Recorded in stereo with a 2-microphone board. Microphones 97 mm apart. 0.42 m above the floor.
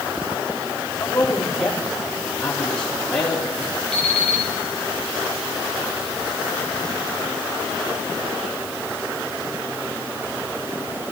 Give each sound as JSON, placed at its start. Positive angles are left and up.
{"t": 1.0, "sound": "a man speaking", "side_deg": 10, "distance_m": 6.5}
{"t": 3.9, "sound": "an alarm clock", "side_deg": 10, "distance_m": 3.5}